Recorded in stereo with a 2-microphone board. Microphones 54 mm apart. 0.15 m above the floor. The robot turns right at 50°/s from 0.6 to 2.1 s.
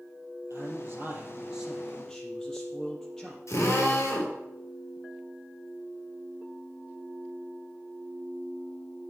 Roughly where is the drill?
Left.